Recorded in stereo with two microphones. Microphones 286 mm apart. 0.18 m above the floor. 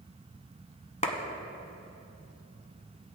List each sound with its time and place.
1.0 s a clap: 25° left (ahead or behind), 1.1 m